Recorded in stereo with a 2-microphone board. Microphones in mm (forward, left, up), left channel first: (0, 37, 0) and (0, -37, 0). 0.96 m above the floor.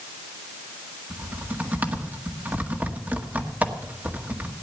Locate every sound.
1.1 s typing on a keyboard: 25° right (ahead or behind), 1.6 m